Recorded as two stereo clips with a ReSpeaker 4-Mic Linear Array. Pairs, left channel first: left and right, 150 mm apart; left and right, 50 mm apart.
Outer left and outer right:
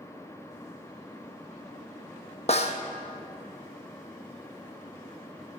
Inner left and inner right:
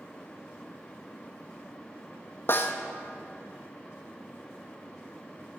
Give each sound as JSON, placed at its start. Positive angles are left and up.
{"t": 2.5, "sound": "a snare drum", "side_deg": 45, "distance_m": 0.8}